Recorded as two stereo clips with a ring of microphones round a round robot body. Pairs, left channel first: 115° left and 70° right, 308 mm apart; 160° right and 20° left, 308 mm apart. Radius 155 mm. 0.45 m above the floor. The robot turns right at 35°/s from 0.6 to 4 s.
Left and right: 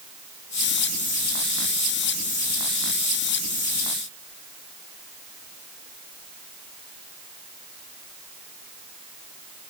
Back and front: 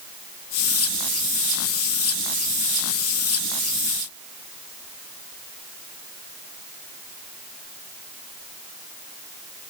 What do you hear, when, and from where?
Only background noise.